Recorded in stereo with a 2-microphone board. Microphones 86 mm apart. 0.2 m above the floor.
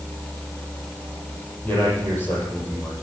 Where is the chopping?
I don't hear chopping.